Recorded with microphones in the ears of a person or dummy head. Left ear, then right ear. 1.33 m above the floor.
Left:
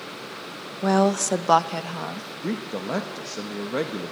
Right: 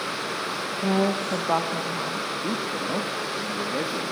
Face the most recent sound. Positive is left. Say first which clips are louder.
# right 3 dB
turn(degrees=75)  # may be behind; listen again after turning